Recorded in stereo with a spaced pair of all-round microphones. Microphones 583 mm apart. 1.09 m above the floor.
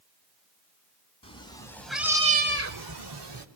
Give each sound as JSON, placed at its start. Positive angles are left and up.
{"t": 1.2, "sound": "a cat meowing", "side_deg": 10, "distance_m": 2.5}